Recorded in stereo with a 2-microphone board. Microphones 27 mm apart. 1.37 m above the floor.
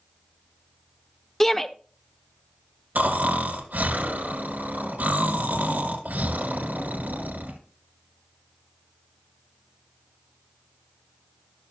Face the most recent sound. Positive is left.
turn(degrees=-80)